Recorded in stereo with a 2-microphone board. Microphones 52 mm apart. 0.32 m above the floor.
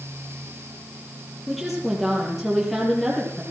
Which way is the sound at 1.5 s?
Centre (ahead or behind).